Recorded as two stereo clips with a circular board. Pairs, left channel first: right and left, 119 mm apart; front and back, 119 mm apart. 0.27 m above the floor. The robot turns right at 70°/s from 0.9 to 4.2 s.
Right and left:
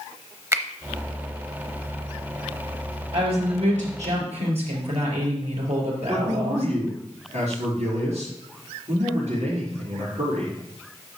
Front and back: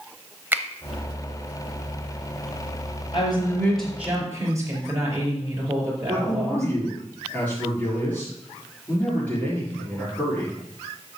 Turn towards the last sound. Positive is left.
turn(degrees=75)